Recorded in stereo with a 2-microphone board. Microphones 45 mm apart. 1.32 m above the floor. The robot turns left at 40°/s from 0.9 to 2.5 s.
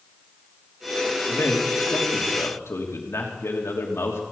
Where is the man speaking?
125° left, 3 m; by 4.2 s 75° left, 3 m.